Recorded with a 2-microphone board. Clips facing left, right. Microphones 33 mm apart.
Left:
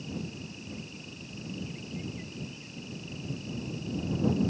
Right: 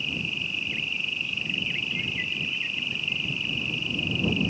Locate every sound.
0.0 s an insect: 65° right (ahead or behind)